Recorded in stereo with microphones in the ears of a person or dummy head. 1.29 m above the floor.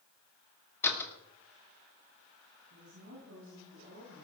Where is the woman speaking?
60° right (ahead or behind), 8 m.